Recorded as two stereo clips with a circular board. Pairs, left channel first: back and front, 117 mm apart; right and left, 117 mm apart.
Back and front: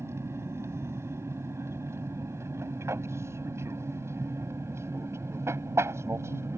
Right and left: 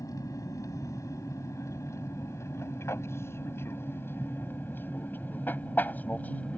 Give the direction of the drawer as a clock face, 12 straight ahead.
I don't hear a drawer.